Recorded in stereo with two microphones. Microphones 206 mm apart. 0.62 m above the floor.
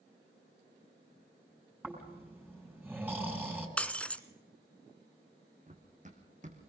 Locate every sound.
1.8 s snoring: 5° right (ahead or behind), 4.5 m
3.8 s breaking glass: 5° left (ahead or behind), 0.8 m
5.7 s running footsteps: 35° right (ahead or behind), 2.5 m